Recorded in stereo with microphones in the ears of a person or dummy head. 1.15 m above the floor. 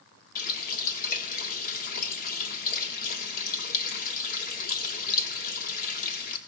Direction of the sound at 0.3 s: 55° left (ahead or behind).